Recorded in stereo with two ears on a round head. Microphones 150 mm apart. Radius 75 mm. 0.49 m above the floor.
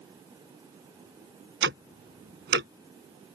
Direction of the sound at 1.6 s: 75° right (ahead or behind).